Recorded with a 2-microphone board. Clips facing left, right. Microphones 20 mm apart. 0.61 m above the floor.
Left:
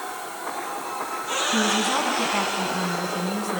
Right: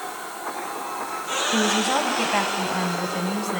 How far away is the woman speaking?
About 3.5 m.